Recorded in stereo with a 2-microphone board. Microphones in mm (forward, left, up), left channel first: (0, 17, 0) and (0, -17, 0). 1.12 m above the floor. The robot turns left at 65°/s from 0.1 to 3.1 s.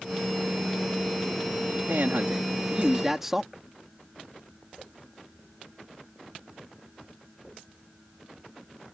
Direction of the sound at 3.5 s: 5° right (ahead or behind).